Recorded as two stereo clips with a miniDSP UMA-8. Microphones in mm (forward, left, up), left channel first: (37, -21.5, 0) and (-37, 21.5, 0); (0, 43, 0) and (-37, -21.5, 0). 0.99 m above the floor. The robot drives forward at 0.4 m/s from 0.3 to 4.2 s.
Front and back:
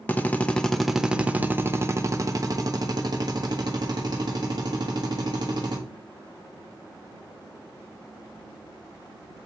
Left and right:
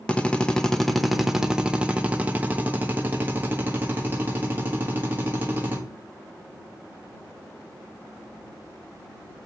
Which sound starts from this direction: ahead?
A drill, at 0.1 s.